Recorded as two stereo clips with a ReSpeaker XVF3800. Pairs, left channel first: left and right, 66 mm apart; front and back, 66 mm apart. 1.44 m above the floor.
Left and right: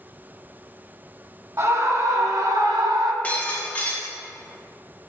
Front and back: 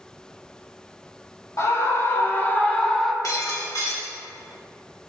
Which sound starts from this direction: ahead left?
Breaking glass, at 3.2 s.